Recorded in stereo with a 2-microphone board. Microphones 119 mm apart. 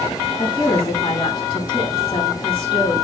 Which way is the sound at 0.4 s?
45° left (ahead or behind).